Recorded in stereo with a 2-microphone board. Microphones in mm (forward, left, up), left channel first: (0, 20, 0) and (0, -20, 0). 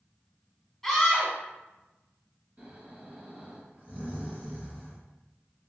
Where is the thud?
I don't hear a thud.